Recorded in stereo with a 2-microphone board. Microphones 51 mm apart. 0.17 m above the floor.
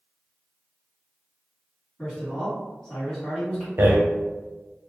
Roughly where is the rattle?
Right.